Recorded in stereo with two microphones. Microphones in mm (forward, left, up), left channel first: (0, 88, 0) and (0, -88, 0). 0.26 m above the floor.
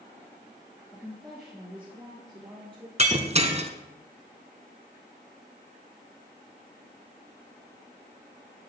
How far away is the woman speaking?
About 3.5 m.